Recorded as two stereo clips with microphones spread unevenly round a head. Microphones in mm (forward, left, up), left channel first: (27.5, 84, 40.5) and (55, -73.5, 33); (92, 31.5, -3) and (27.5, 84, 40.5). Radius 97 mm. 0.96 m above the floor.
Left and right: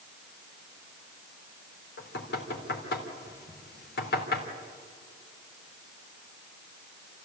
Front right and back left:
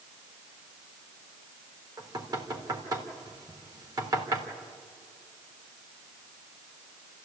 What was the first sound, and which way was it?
Knocking, 95° left.